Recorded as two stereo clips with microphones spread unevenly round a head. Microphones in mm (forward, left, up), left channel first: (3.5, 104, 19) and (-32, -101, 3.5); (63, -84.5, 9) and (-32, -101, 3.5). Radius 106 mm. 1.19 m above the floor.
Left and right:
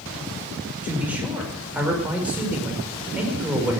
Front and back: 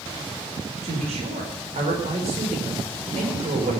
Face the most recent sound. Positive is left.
turn(degrees=175)